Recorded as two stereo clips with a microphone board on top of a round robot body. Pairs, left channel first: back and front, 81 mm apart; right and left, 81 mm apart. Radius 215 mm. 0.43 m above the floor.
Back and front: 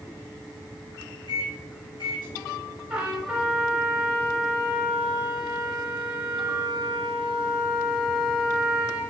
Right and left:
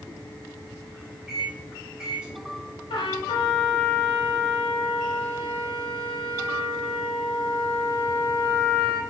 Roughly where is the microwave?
Behind.